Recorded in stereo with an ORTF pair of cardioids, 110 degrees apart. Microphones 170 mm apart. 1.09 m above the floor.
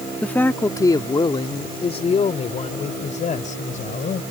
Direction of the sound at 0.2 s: 5° left.